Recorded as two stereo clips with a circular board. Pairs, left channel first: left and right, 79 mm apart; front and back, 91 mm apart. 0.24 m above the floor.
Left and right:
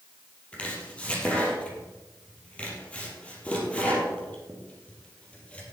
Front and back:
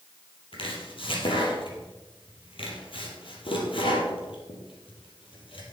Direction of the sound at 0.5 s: 15° left.